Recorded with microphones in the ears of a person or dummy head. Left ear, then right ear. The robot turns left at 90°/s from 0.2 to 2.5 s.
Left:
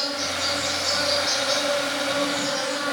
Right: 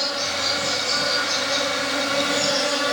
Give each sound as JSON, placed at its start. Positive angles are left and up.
{"t": 0.0, "sound": "an insect", "azimuth_deg": 170, "distance_m": 1.6}